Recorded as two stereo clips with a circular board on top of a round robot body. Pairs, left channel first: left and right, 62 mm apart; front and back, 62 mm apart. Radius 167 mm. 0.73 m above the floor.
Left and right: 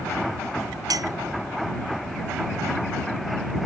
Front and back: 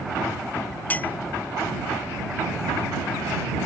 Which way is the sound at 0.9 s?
70° right.